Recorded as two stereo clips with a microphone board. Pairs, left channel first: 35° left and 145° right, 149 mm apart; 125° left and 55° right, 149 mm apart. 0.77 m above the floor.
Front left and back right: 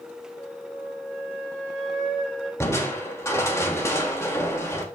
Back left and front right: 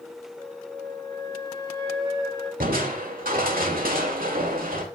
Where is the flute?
5° left, 6 m.